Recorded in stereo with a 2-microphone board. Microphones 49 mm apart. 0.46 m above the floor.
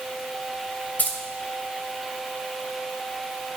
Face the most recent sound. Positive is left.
turn(degrees=35)  # may be behind; listen again after turning